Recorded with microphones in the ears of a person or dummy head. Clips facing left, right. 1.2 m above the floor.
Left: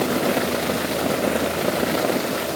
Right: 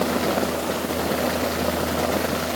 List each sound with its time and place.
Only background noise.